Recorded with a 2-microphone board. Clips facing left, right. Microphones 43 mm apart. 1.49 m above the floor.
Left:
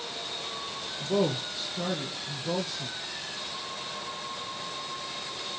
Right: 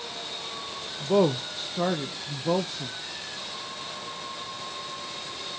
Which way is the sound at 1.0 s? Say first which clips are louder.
Right 5 dB; 35° right (ahead or behind).